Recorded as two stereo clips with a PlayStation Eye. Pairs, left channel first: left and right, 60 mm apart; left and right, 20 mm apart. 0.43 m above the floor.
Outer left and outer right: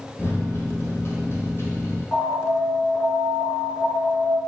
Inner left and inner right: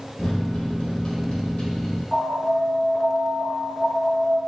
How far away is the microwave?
About 1.7 m.